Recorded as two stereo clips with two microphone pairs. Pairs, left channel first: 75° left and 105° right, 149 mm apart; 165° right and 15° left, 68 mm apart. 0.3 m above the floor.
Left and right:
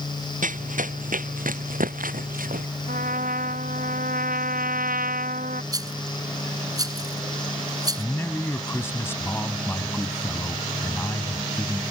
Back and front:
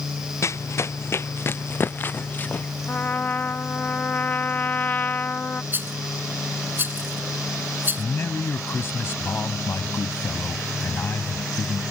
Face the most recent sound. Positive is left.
turn(degrees=145)